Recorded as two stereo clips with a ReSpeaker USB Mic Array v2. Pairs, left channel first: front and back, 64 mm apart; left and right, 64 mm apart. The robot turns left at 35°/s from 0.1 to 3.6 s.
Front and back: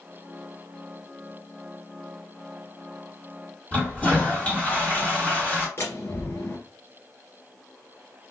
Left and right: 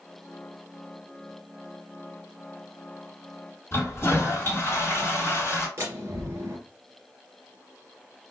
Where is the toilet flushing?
60° left, 1.7 m.